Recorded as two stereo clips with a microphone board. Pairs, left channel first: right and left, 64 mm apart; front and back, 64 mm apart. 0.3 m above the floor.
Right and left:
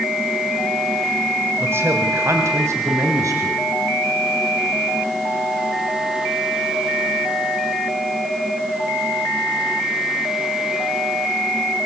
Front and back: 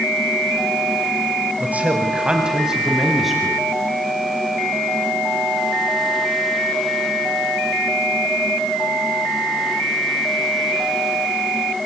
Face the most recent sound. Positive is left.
turn(degrees=90)